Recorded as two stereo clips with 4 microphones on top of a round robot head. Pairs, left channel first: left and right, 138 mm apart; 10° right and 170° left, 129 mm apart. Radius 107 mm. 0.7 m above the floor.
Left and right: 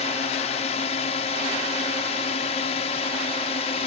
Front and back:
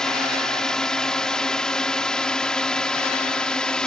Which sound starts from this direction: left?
A drone, at 0.0 s.